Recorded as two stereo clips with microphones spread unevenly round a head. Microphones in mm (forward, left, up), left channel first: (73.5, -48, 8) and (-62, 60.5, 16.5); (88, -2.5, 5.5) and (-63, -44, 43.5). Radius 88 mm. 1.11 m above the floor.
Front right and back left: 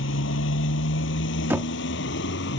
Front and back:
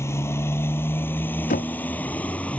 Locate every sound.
0.0 s a motorcycle: 60° right; by 2.6 s 70° right
1.5 s knocking: 65° left